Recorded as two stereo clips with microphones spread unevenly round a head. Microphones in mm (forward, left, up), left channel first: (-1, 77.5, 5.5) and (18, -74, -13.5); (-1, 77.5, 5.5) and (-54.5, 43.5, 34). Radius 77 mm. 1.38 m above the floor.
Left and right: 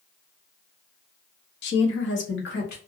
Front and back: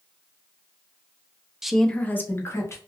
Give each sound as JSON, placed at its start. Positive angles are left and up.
{"t": 1.6, "sound": "a woman speaking", "azimuth_deg": 120, "distance_m": 0.6}